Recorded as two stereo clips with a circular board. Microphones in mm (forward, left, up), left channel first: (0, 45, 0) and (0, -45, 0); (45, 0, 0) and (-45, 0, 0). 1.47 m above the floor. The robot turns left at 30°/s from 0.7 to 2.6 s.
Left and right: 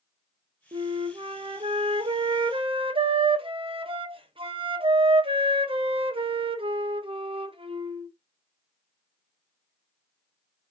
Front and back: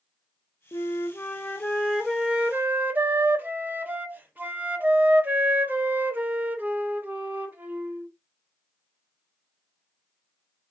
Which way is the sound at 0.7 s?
55° right.